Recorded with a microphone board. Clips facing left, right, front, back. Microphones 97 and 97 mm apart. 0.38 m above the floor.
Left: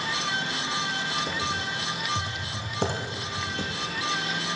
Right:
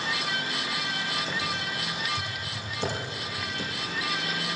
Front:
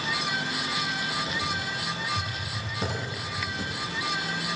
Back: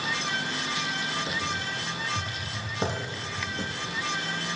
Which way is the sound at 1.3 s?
120° left.